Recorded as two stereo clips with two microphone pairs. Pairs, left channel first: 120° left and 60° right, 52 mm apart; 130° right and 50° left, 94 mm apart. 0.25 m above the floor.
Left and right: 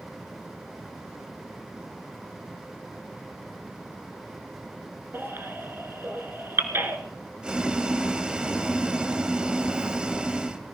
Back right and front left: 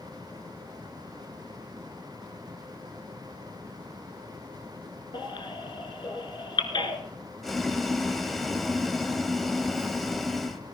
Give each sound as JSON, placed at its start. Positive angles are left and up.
{"t": 5.1, "sound": "a baby crying", "azimuth_deg": -100, "distance_m": 1.7}
{"t": 7.4, "sound": "boiling", "azimuth_deg": -45, "distance_m": 1.2}